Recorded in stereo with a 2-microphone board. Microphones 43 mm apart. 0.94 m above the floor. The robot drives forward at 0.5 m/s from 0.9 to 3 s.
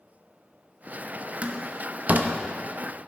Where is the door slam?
30° right (ahead or behind), 1.0 m; by 2.3 s 45° right (ahead or behind), 0.7 m.